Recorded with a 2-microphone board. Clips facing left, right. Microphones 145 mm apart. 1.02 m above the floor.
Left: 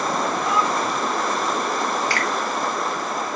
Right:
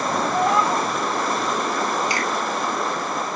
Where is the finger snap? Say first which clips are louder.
Even; 15° right (ahead or behind), 3.5 m.